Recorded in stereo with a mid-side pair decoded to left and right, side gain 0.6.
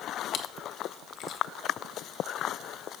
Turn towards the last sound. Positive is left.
turn(degrees=60)